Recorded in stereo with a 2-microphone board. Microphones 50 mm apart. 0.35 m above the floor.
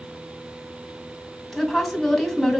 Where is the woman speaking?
5° left (ahead or behind), 2 m.